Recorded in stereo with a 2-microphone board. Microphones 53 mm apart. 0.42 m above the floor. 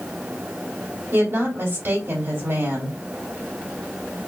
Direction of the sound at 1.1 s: 50° right (ahead or behind).